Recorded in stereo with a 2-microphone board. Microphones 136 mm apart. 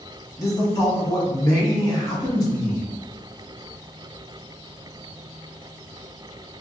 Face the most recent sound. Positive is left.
turn(degrees=30)  # may be behind; listen again after turning